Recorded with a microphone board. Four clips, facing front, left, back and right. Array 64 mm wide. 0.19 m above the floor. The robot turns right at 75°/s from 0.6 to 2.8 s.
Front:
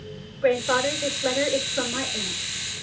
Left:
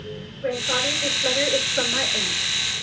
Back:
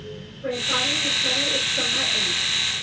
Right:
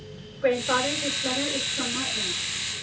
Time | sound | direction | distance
0.4 | a woman speaking | 30° right | 3.5 m